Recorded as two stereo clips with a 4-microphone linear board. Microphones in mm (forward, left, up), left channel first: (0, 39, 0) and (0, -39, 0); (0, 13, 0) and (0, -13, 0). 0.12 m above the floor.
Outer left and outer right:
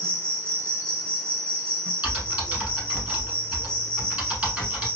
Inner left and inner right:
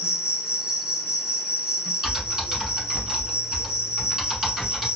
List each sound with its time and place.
0.0 s an insect: 35° right (ahead or behind), 1.2 m
2.0 s typing on a keyboard: 20° right (ahead or behind), 1.3 m